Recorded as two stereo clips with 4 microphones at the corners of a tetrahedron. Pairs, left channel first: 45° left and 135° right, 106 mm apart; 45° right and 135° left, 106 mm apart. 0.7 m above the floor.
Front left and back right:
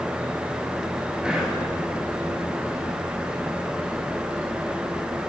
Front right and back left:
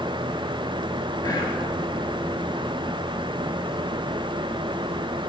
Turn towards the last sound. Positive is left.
turn(degrees=-55)